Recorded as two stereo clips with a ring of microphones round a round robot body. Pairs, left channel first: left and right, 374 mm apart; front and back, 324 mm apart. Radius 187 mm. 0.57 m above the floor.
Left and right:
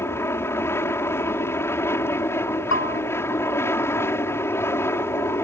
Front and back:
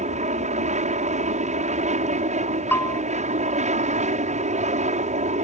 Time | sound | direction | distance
0.0 | an aircraft | 165° left | ?
2.7 | a bell | 80° left | ?